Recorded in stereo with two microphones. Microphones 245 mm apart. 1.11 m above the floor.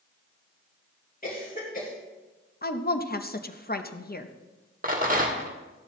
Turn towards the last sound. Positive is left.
turn(degrees=-35)  # may be behind; listen again after turning